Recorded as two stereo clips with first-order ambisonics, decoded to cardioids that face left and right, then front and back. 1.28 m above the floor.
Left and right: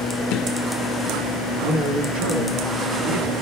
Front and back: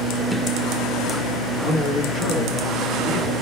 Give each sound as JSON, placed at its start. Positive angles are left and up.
{"t": 1.6, "sound": "a man speaking", "azimuth_deg": -65, "distance_m": 8.0}